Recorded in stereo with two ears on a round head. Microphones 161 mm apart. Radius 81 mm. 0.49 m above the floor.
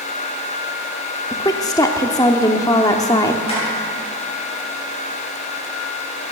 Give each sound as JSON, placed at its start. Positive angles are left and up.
{"t": 1.3, "sound": "a woman speaking", "side_deg": 20, "distance_m": 0.7}
{"t": 3.5, "sound": "tapping", "side_deg": 30, "distance_m": 6.5}